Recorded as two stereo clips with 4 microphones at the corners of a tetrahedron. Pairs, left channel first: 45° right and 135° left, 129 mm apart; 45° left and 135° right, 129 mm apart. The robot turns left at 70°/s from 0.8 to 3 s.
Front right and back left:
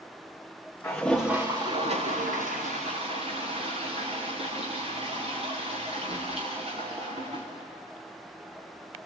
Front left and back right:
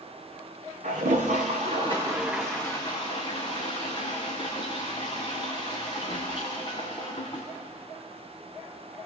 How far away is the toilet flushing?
About 5 m.